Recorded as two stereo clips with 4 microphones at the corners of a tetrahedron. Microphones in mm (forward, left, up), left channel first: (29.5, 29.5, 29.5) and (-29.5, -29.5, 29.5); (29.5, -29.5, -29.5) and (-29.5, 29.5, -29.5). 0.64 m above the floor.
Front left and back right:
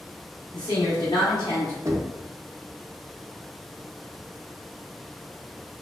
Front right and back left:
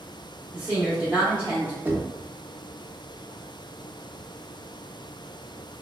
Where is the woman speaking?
65° left, 1.1 m.